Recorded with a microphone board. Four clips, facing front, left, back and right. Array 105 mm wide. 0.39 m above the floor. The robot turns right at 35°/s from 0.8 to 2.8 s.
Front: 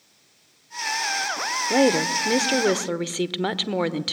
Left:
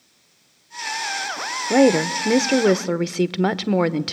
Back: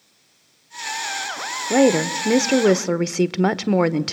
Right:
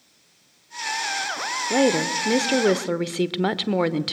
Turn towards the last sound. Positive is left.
turn(degrees=155)